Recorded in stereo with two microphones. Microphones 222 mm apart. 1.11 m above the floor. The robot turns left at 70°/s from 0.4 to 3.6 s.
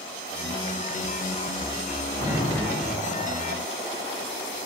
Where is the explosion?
170° right, 1.5 m; by 3.2 s 120° left, 1.5 m.